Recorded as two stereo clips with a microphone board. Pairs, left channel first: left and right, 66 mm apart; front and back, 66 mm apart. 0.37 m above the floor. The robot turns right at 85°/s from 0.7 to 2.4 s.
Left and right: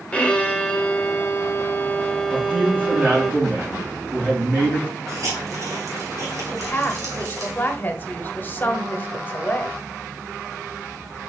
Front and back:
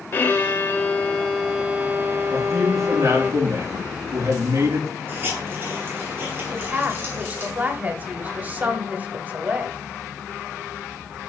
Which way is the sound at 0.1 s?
30° left.